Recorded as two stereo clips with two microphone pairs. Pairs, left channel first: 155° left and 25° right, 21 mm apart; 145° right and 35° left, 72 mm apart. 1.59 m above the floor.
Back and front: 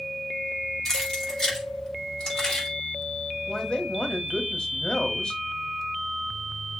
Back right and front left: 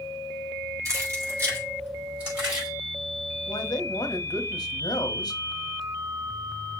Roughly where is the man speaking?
Behind.